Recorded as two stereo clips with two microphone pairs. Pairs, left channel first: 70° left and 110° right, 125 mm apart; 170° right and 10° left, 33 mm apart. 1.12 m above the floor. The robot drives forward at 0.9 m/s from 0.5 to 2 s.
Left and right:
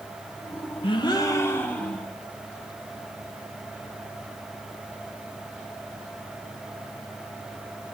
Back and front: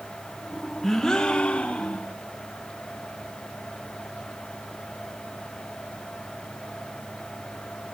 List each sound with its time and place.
0.8 s a gasp: 100° left, 0.8 m; by 2.1 s 155° left, 1.4 m